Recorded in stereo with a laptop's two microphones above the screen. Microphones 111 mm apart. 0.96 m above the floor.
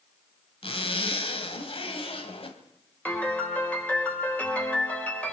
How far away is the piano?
About 4 m.